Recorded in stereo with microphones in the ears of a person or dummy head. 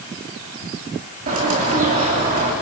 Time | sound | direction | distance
1.3 | a bird | 40° right (ahead or behind) | 3 m